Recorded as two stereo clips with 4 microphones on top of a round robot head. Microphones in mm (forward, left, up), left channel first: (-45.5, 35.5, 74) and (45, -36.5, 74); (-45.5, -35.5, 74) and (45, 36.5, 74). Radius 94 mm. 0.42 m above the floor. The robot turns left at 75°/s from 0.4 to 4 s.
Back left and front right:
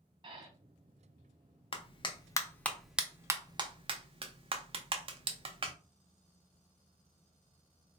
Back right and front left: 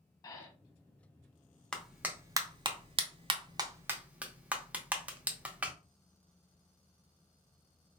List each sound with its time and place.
0.2 s breathing: 85° right, 1.0 m; by 0.5 s 95° right, 1.0 m
1.7 s a clap: 135° left, 0.7 m; by 5.7 s 35° right, 0.7 m